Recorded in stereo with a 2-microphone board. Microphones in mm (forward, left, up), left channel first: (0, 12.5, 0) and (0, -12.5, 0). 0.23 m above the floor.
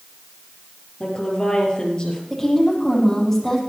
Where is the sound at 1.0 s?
35° left (ahead or behind), 5 m.